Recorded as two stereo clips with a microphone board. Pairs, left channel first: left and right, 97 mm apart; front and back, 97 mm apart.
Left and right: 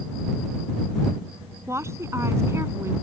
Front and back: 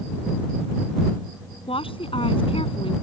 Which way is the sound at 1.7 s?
25° right.